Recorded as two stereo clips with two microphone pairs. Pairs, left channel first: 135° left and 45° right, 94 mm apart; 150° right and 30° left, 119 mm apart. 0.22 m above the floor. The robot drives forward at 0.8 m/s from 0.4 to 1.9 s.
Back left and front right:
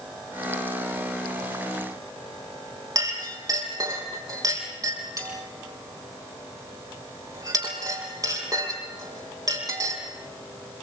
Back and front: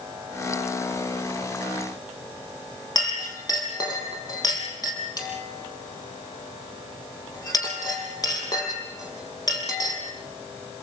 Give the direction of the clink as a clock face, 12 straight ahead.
3 o'clock.